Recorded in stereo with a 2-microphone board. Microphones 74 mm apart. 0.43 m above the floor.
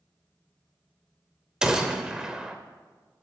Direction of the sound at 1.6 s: 10° right (ahead or behind).